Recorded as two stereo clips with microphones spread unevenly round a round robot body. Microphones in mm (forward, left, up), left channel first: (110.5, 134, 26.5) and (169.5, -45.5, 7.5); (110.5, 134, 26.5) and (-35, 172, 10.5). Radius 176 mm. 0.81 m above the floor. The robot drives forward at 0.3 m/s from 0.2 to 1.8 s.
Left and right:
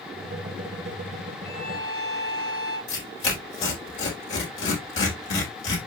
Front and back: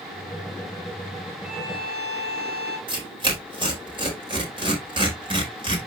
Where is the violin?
170° right, 2 m.